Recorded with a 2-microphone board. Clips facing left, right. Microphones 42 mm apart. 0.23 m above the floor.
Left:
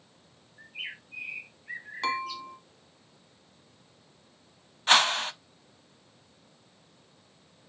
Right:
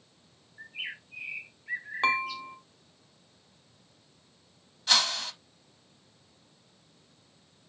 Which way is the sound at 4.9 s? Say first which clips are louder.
Left 5 dB; 40° left (ahead or behind).